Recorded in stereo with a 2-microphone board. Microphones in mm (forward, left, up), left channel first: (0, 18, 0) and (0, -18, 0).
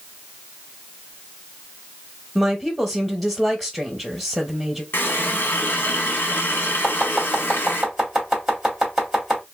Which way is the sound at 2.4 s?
5° right (ahead or behind).